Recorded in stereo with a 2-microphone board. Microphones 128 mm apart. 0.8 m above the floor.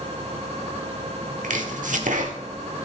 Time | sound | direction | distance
1.4 | chopping | 85° right | 1.2 m